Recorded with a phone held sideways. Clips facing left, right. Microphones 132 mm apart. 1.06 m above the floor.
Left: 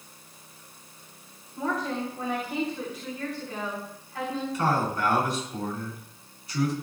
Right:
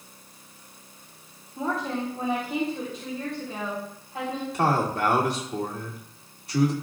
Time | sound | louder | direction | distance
1.6 | a woman speaking | right 1 dB | 30° right (ahead or behind) | 4 m
4.5 | a man speaking | right 3 dB | 70° right (ahead or behind) | 2.5 m